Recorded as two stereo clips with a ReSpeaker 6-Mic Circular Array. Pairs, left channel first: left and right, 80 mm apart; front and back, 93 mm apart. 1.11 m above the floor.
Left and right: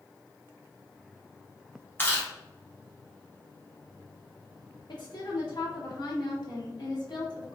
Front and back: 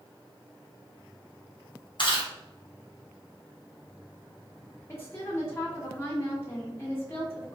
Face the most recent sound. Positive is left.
turn(degrees=65)